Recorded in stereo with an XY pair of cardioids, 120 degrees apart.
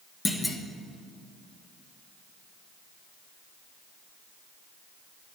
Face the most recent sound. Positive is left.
turn(degrees=10)